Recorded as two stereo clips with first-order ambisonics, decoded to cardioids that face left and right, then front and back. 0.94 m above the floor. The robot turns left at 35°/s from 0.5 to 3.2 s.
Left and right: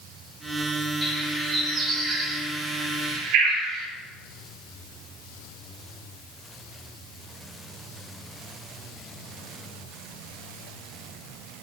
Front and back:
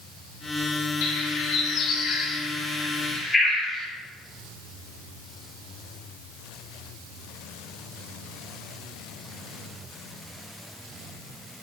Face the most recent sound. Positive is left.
turn(degrees=-80)